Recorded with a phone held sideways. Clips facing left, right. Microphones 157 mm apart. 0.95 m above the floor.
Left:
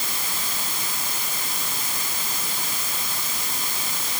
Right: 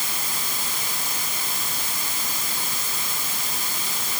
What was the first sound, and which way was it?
Only background noise.